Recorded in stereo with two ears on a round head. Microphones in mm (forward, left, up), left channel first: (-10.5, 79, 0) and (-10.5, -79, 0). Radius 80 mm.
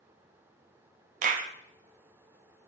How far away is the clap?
About 0.6 m.